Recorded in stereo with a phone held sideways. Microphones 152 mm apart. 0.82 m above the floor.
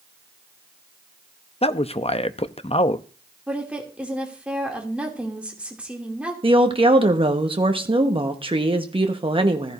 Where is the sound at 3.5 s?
5° right (ahead or behind), 2.5 m.